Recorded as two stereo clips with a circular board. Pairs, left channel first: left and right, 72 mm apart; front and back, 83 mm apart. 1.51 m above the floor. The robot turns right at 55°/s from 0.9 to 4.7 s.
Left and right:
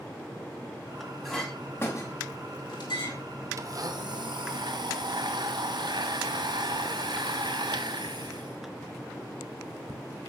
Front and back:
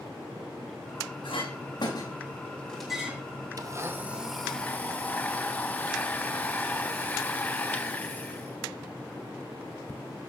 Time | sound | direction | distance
1.2 | a clink | straight ahead | 6 m
3.6 | a blender | 135° right | 1.4 m